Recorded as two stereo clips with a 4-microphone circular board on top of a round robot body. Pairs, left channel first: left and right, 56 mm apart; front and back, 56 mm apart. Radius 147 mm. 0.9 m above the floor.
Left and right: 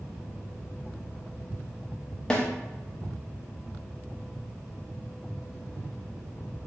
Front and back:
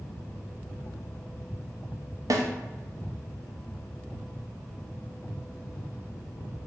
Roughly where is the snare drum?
Behind.